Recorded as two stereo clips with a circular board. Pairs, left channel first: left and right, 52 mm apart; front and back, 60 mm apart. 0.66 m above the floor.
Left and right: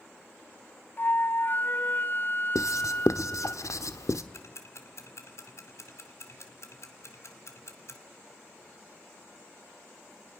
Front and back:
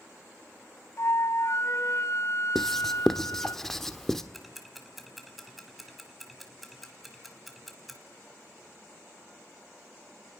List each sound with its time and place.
1.0 s a flute: 40° left, 0.8 m
2.5 s writing: 85° left, 1.1 m
4.3 s ticking: 90° left, 2.0 m